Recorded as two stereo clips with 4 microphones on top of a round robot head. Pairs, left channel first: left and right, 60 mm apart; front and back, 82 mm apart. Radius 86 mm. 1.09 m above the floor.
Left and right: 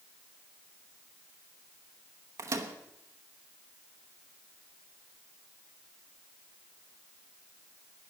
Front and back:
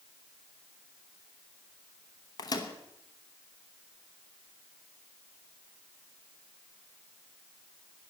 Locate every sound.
2.4 s a microwave: 50° right, 0.9 m